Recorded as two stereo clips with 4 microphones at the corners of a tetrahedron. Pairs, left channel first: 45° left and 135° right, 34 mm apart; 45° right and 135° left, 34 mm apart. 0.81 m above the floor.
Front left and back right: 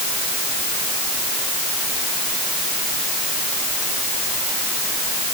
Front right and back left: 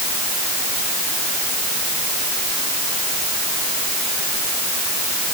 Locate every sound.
Only background noise.